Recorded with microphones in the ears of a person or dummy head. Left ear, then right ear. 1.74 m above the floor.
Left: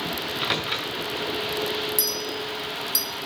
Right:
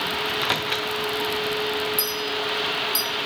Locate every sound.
0.2 s a microwave: 10° right (ahead or behind), 0.6 m
2.0 s a clink: 10° left (ahead or behind), 1.1 m